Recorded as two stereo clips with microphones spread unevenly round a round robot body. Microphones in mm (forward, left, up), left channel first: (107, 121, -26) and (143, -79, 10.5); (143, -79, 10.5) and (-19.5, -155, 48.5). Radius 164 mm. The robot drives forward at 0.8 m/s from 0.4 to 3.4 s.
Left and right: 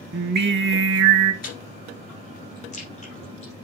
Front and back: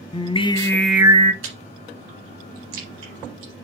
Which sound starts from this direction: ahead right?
Singing, at 0.1 s.